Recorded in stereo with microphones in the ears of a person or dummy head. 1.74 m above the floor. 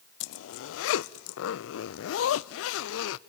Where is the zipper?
80° left, 0.6 m.